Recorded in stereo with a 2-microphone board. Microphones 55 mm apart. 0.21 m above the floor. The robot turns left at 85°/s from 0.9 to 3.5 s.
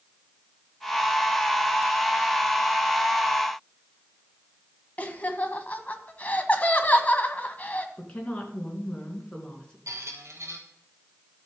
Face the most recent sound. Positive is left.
turn(degrees=-65)  # may be behind; listen again after turning